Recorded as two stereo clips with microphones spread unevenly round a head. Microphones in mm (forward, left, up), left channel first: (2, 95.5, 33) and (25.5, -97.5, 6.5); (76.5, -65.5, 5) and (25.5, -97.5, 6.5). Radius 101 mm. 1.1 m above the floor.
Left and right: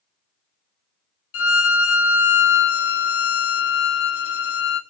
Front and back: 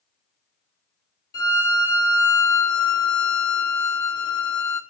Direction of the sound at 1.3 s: 85° left.